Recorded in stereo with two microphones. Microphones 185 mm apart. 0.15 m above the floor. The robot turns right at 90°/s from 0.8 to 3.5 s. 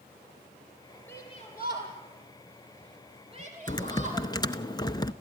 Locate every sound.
1.1 s a shout: 10° left (ahead or behind), 5 m; by 4.3 s 45° right (ahead or behind), 5 m
3.7 s typing on a keyboard: 25° left (ahead or behind), 0.6 m